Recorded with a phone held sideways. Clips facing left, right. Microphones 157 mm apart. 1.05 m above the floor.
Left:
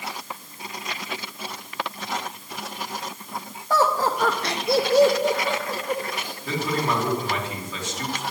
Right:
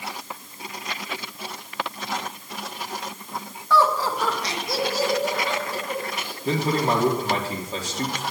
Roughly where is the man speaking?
Right.